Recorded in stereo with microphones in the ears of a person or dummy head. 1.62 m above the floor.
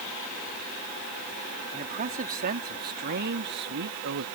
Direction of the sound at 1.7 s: 40° right (ahead or behind).